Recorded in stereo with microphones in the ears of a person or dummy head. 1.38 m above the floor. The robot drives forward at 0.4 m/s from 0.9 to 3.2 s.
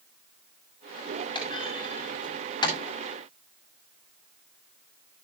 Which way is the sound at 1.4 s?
25° left (ahead or behind).